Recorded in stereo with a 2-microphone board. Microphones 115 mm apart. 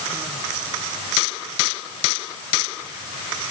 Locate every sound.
Only background noise.